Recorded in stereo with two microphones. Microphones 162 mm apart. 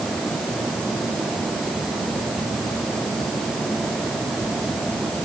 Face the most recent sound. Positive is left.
No sound to turn to.